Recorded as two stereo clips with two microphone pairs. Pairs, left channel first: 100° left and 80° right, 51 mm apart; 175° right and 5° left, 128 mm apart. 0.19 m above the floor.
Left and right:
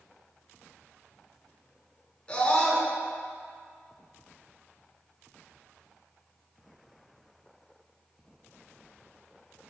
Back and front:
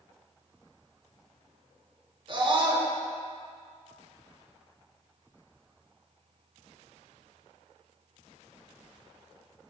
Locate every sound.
2.3 s a scream: 35° left, 1.6 m